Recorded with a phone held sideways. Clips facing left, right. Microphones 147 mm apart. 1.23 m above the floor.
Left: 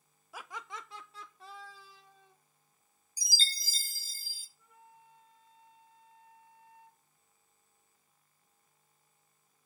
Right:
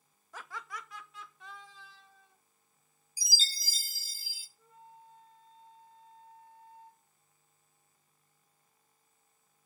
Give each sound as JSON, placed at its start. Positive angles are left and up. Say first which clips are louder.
{"t": 0.3, "sound": "laughter", "louder": "even", "side_deg": 10, "distance_m": 0.6}
{"t": 3.2, "sound": "a chime", "louder": "left 1 dB", "side_deg": -5, "distance_m": 0.5}
{"t": 4.6, "sound": "a flute", "louder": "right 4 dB", "side_deg": -30, "distance_m": 1.6}